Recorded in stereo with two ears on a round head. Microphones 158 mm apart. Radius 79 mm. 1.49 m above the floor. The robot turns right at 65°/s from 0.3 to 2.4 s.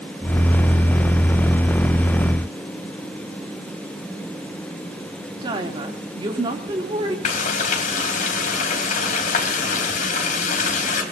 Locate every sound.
5.4 s a woman speaking: 25° right (ahead or behind), 3 m
7.2 s frying: 45° left (ahead or behind), 3.5 m